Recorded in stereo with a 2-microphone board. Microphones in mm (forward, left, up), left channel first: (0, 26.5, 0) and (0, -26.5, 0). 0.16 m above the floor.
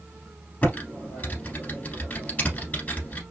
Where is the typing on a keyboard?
30° left (ahead or behind), 1.2 m.